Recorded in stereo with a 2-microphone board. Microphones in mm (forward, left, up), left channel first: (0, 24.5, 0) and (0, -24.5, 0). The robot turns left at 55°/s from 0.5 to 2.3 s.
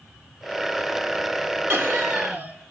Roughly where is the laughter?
Right.